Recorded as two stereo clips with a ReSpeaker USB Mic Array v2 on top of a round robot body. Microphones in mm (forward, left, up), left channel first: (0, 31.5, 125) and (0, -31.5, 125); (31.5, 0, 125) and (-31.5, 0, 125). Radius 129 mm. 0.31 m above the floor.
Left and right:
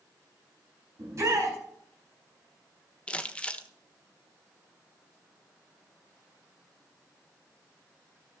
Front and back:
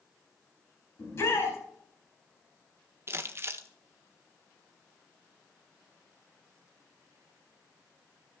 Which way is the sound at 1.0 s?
45° right.